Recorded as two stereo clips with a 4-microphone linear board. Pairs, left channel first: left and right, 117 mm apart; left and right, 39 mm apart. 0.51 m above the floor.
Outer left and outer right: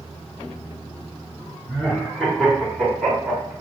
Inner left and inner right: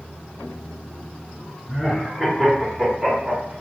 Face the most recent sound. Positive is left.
turn(degrees=-10)  # may be behind; listen again after turning